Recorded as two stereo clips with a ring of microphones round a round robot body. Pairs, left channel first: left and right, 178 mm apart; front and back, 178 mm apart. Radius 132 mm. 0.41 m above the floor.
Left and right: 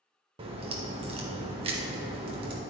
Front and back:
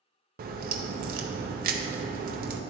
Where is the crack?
150° right, 0.5 m.